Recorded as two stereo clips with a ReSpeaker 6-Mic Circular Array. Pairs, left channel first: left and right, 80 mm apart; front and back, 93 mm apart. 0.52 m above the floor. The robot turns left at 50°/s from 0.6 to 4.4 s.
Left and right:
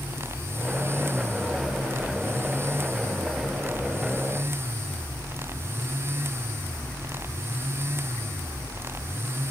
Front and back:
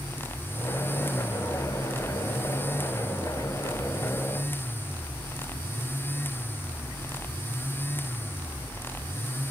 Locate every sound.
Only background noise.